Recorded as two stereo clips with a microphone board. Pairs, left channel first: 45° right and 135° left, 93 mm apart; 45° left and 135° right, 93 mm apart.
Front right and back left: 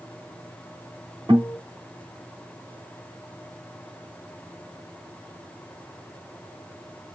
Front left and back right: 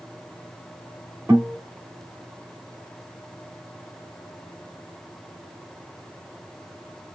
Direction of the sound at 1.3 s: 165° left.